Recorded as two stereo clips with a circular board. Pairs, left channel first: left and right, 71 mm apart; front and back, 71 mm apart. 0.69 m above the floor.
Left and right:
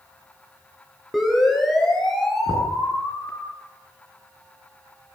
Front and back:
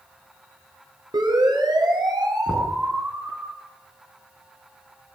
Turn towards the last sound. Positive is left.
turn(degrees=-90)